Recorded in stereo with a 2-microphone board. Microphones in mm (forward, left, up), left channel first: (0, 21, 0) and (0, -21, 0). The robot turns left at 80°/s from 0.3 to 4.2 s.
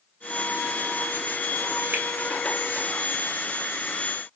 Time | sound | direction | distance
1.9 | a finger snap | 45° right (ahead or behind) | 2.5 m